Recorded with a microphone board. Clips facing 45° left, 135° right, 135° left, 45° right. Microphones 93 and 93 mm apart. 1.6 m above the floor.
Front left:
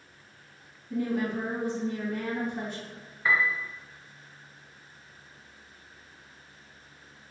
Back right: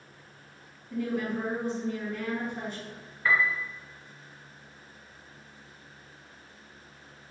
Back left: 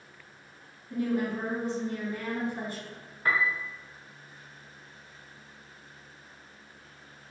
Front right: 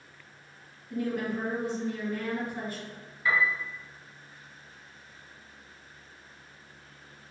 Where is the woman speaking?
75° left, 1.9 m.